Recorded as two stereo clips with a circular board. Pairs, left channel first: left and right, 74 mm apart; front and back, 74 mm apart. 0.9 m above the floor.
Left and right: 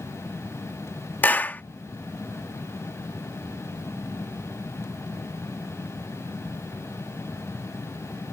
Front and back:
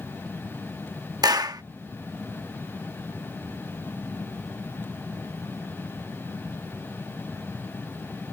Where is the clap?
155° left.